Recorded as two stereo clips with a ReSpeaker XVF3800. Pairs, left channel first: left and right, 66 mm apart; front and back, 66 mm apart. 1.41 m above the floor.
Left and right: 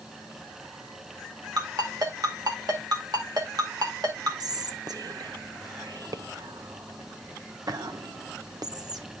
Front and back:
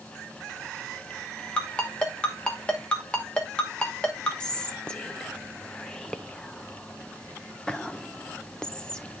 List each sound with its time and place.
1.6 s a ringtone: 75° right, 2 m
4.4 s whispering: 75° right, 0.9 m